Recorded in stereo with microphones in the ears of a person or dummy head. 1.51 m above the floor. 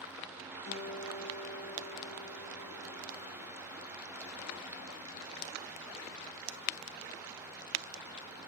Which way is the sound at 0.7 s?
35° left (ahead or behind).